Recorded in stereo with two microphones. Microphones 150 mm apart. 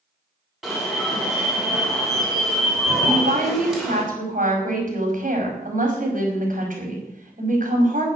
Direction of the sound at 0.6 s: Centre (ahead or behind).